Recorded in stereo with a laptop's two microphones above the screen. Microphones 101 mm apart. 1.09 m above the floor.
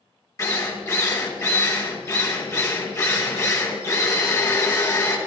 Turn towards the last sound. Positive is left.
turn(degrees=30)  # may be behind; listen again after turning